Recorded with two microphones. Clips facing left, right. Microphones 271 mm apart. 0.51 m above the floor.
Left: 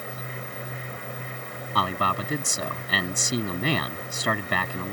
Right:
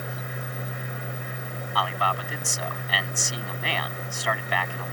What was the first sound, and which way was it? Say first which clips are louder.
A man speaking: left 2 dB; 45° left (ahead or behind).